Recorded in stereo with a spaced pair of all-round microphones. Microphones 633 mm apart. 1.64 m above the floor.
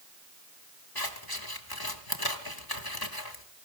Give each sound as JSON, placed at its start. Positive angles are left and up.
{"t": 0.9, "sound": "scissors", "side_deg": 35, "distance_m": 1.6}